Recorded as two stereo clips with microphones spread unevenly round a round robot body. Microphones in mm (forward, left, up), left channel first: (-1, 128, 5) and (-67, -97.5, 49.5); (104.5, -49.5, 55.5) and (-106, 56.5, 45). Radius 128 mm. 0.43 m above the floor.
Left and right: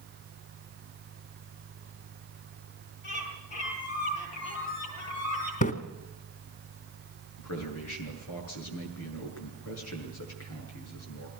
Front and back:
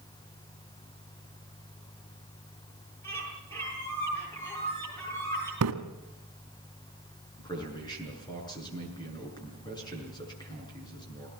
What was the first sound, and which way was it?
A bird, 55° left.